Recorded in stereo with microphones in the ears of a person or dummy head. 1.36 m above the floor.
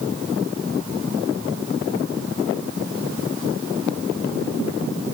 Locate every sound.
Only background noise.